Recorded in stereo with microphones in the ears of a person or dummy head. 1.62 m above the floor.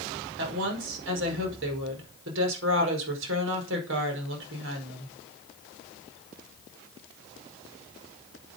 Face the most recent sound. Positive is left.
turn(degrees=-75)  # may be behind; listen again after turning